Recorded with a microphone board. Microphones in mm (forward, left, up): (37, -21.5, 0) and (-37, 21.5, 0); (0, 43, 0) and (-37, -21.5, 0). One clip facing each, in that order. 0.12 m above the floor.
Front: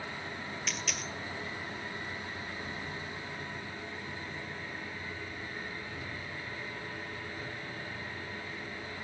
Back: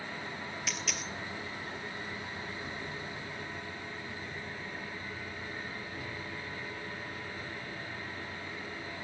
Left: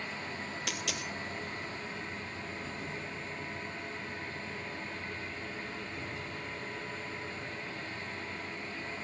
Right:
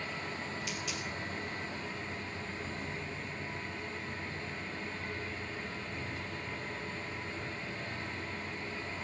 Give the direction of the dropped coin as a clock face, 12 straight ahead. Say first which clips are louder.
Front 1 dB, left 1 dB; 10 o'clock.